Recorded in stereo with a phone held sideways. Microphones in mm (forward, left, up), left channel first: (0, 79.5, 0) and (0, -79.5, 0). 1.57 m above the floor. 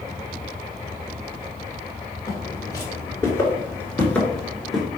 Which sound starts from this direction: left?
Footsteps, at 2.3 s.